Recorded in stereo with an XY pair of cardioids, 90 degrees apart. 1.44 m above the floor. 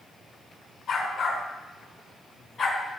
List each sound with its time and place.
0.9 s a dog barking: 50° left, 5 m; by 2.9 s 35° left, 4.5 m